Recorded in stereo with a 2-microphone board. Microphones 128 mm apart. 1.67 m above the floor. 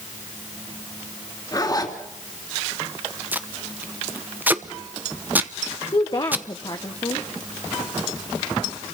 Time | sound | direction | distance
1.5 | a zipper | 30° left (ahead or behind) | 2.5 m
3.3 | tape being pulled | 15° right (ahead or behind) | 0.9 m
5.9 | a woman speaking | 35° left (ahead or behind) | 1.1 m